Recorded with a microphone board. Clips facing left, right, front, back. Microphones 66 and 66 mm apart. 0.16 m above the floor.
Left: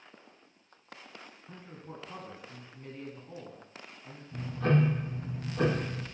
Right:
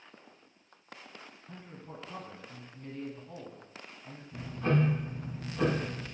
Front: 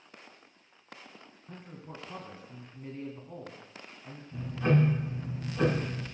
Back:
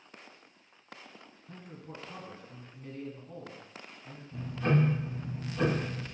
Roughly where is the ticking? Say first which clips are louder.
Left 2 dB, front 2 dB; left.